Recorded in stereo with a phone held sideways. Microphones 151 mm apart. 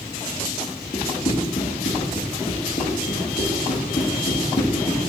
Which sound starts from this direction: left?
Running footsteps, at 0.9 s.